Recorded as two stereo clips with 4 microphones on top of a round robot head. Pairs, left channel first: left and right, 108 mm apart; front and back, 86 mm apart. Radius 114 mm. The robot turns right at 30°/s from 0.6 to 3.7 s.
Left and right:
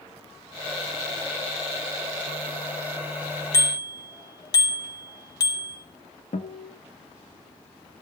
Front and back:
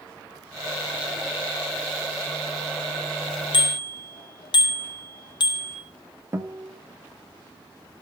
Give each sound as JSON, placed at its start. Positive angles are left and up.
{"t": 3.5, "sound": "a bicycle bell", "azimuth_deg": 30, "distance_m": 3.5}
{"t": 6.3, "sound": "a guitar", "azimuth_deg": 125, "distance_m": 1.9}